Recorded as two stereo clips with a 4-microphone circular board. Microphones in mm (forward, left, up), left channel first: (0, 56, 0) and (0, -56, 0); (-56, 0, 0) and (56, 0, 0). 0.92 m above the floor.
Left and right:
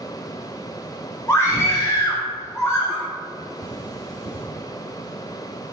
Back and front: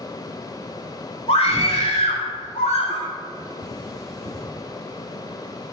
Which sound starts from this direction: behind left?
A scream, at 1.3 s.